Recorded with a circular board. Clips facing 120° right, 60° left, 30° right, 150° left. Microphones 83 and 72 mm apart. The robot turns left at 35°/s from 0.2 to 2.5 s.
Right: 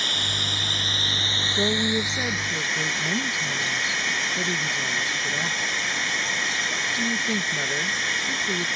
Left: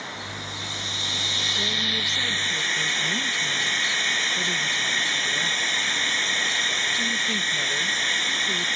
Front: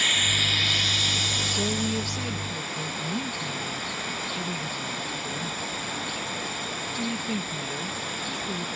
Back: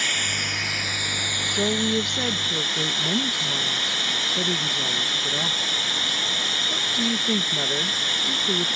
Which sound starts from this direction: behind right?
Running water, at 0.0 s.